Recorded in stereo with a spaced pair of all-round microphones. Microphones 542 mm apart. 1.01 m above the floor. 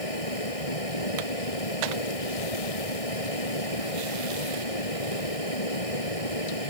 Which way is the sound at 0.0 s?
75° left (ahead or behind).